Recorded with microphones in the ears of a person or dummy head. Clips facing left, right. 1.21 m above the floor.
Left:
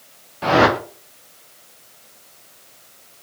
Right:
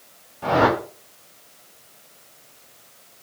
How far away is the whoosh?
About 0.5 m.